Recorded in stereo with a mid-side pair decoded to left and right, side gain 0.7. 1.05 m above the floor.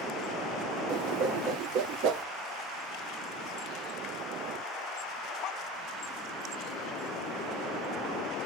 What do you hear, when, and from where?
0.9 s a whoosh: 60° right, 0.8 m